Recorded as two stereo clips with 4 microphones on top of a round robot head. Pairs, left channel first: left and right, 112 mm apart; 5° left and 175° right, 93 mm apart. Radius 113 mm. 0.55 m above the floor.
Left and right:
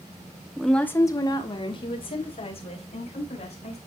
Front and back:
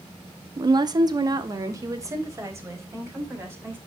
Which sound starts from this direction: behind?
A woman speaking, at 0.6 s.